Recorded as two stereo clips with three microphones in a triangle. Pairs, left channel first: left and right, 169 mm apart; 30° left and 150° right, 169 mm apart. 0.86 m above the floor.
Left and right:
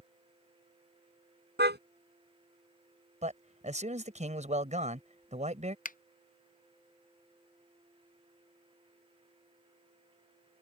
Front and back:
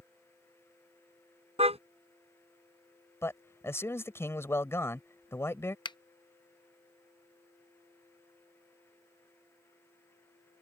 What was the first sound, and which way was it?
A car horn, 95° right.